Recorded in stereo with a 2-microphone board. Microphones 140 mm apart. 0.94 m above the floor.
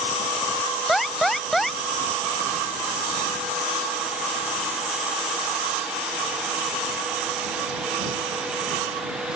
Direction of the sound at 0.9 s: Centre (ahead or behind).